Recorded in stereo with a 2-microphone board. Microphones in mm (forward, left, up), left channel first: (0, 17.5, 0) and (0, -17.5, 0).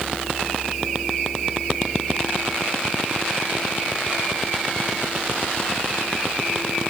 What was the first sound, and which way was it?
Only background noise.